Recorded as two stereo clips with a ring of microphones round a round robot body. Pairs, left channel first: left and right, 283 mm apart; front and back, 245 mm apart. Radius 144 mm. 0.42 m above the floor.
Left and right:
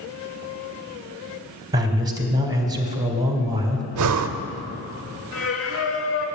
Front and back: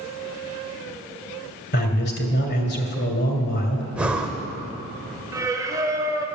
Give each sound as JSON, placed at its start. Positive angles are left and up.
{"t": 1.7, "sound": "a man speaking", "azimuth_deg": -20, "distance_m": 1.9}
{"t": 4.0, "sound": "breathing", "azimuth_deg": -95, "distance_m": 0.7}
{"t": 5.3, "sound": "singing", "azimuth_deg": 105, "distance_m": 1.7}